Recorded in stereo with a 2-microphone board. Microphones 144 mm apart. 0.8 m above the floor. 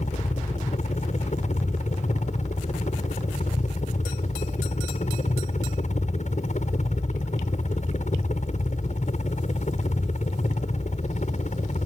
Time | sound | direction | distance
0.0 | a helicopter | 55° left (ahead or behind) | ?